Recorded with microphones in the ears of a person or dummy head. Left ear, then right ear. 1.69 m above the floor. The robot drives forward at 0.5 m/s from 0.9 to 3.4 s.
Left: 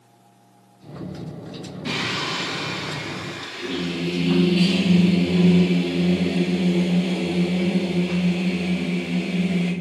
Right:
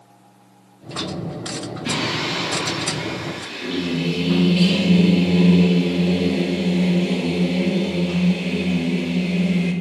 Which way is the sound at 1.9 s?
10° left (ahead or behind).